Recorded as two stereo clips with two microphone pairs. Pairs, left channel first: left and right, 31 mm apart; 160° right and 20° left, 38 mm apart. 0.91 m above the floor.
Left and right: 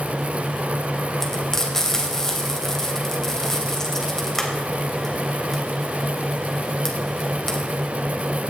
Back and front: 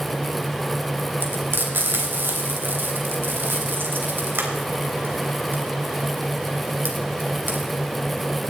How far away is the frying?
About 3 m.